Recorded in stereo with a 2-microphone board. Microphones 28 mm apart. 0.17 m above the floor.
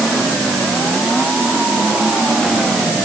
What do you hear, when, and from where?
Only background noise.